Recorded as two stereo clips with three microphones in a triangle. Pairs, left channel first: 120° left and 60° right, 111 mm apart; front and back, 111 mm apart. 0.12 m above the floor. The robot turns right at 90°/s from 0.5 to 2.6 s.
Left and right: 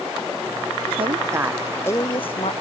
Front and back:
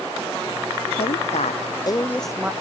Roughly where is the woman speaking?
Ahead right.